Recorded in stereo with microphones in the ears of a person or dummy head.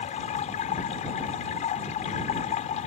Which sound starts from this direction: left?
Running water, at 0.0 s.